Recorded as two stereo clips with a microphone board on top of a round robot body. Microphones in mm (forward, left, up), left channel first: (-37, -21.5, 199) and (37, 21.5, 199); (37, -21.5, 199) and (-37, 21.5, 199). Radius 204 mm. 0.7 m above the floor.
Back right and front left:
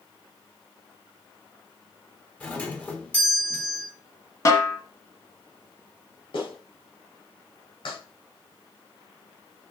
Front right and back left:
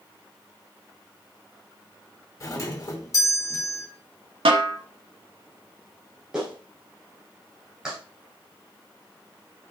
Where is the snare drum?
155° left, 1.6 m.